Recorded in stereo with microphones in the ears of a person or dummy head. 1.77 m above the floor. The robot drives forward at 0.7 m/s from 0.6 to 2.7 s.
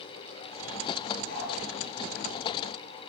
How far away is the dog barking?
About 8 m.